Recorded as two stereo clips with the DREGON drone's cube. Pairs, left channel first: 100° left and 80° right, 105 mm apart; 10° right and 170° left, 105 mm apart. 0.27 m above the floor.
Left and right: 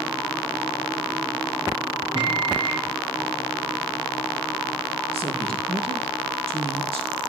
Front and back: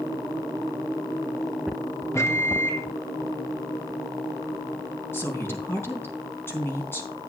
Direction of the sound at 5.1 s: 75° right.